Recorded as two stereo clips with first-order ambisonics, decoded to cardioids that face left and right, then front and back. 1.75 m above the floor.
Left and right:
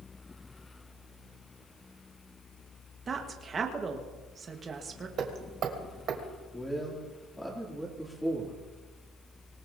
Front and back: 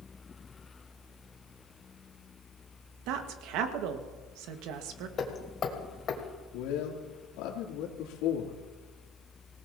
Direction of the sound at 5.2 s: 50° right.